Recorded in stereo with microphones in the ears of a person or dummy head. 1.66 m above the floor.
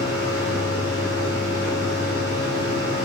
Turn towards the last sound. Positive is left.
turn(degrees=-45)  # may be behind; listen again after turning